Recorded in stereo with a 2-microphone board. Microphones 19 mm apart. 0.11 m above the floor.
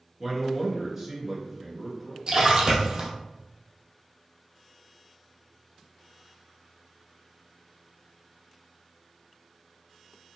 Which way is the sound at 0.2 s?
20° right (ahead or behind).